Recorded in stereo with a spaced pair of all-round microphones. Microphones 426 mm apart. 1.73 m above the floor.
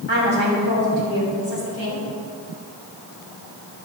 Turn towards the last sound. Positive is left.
turn(degrees=80)